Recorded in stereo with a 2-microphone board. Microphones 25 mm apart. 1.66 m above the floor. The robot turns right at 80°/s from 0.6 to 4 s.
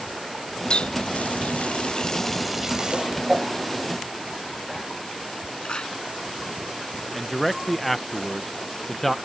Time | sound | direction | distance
0.7 | a running tap | 35° left (ahead or behind) | ?
2.9 | a whoosh | 25° right (ahead or behind) | ?
5.7 | a clap | 40° left (ahead or behind) | ?
7.1 | a man speaking | 10° left (ahead or behind) | ?